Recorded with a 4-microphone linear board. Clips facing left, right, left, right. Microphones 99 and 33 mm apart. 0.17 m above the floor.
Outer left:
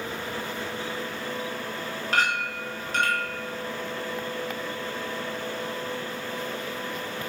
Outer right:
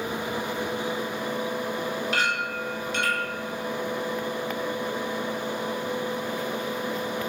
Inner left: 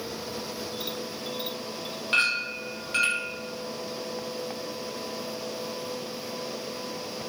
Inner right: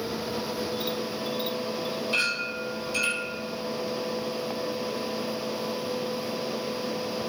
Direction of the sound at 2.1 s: 50° left (ahead or behind).